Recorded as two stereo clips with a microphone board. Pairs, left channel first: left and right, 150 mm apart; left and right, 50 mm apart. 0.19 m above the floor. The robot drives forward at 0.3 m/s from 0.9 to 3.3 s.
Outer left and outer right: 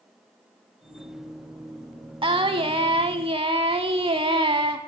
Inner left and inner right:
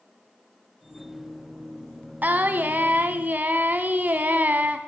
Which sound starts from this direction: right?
Singing, at 2.2 s.